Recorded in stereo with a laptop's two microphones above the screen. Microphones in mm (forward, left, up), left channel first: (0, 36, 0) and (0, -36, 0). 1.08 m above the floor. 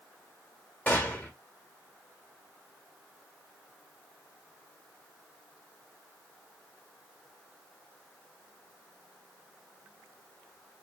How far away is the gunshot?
About 0.9 m.